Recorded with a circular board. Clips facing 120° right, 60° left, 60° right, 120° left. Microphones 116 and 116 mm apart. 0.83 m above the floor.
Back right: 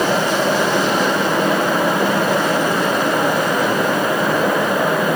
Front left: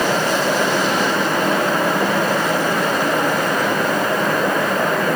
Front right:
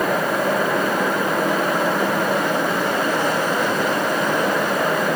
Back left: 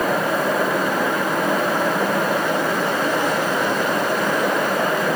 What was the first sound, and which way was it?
Only background noise.